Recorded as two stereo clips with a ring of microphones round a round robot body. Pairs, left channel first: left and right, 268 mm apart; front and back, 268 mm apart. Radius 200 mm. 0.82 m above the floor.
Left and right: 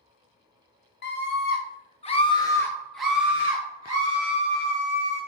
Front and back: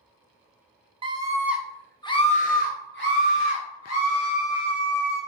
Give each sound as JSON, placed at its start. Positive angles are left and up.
{"t": 1.0, "sound": "a scream", "azimuth_deg": 115, "distance_m": 0.9}